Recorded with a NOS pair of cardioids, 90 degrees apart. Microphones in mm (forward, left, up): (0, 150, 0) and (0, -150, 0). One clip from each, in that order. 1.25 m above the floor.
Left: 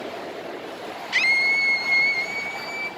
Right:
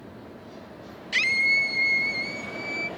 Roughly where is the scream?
Ahead.